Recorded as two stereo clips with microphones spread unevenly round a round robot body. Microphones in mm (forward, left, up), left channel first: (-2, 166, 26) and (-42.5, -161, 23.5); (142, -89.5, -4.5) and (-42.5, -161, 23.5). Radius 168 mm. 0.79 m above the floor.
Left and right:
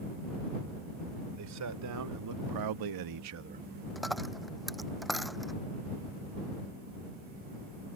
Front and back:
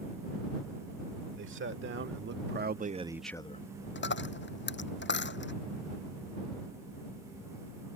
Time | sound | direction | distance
1.4 | a man speaking | 140° right | ?
4.0 | a dropped coin | 5° right | ?